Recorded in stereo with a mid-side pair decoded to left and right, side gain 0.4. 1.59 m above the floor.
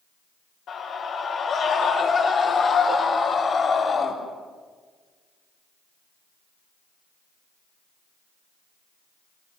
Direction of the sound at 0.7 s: 65° left.